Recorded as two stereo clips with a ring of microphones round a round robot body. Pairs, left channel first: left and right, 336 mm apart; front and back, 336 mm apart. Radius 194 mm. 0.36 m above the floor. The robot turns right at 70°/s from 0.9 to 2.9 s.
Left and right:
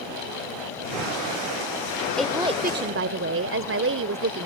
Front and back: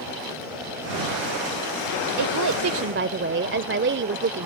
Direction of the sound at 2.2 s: 175° left.